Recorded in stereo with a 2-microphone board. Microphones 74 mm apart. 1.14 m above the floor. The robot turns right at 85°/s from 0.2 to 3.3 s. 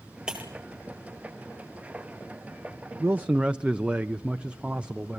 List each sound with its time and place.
0.3 s breaking glass: 10° right (ahead or behind), 3.5 m; by 0.5 s 30° right (ahead or behind), 3.5 m
3.0 s a man speaking: 40° right (ahead or behind), 0.6 m; by 5.2 s 15° right (ahead or behind), 0.6 m